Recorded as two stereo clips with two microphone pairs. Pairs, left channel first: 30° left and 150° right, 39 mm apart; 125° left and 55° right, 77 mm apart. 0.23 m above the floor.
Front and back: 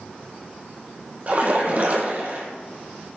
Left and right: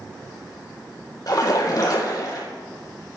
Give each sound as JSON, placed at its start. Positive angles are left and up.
{"t": 1.3, "sound": "a splash", "azimuth_deg": 160, "distance_m": 3.0}